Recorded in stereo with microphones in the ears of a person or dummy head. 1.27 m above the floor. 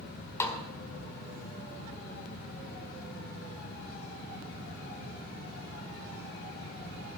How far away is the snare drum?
About 1.6 m.